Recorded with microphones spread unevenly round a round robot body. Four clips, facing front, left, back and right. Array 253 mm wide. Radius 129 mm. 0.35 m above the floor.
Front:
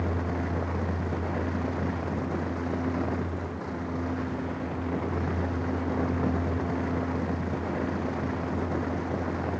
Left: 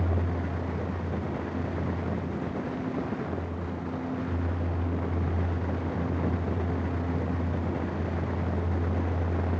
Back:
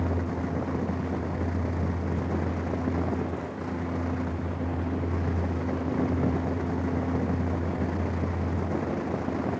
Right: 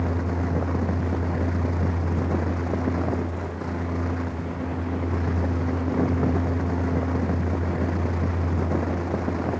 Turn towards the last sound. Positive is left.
No sound to turn to.